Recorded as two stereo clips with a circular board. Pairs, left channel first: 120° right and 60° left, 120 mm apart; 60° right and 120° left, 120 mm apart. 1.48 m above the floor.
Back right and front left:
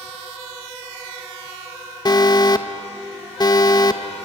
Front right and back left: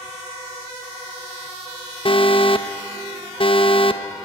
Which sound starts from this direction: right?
An alarm, at 2.0 s.